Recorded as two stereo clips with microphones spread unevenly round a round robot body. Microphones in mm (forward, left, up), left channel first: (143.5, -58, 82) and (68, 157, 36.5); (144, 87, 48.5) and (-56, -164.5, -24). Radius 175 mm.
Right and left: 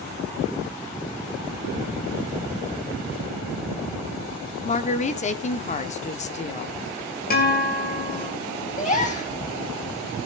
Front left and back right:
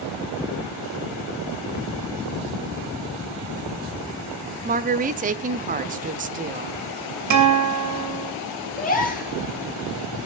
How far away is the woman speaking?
About 0.9 m.